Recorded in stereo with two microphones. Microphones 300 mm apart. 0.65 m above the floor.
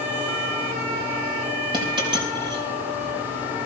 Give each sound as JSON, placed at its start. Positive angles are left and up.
{"t": 1.7, "sound": "a dropped coin", "side_deg": -15, "distance_m": 4.5}